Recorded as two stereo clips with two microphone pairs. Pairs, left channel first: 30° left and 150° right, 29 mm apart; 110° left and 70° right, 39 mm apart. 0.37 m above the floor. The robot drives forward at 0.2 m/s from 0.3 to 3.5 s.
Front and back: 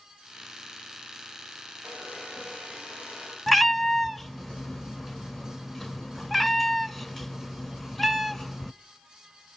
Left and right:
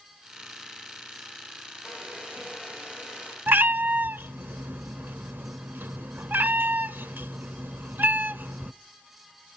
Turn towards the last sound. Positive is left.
turn(degrees=-50)